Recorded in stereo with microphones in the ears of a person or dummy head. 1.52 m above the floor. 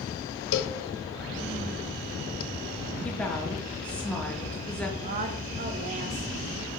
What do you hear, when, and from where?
0.5 s a cowbell: 80° left, 0.8 m
3.0 s a woman speaking: 5° left (ahead or behind), 1.2 m
5.0 s a woman speaking: 40° right (ahead or behind), 1.1 m